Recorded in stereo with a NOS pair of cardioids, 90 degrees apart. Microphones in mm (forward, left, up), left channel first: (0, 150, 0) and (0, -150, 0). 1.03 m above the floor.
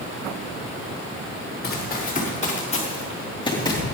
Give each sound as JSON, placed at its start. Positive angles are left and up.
{"t": 1.6, "sound": "running footsteps", "azimuth_deg": 35, "distance_m": 4.0}